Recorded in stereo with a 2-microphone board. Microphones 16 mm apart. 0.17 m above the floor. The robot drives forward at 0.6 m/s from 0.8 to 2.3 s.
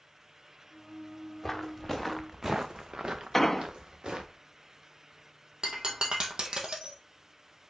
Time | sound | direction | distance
1.4 | footsteps | 15° left (ahead or behind) | 1.2 m
3.3 | an explosion | 10° left (ahead or behind) | 0.6 m
5.6 | breaking glass | 55° right (ahead or behind) | 1.6 m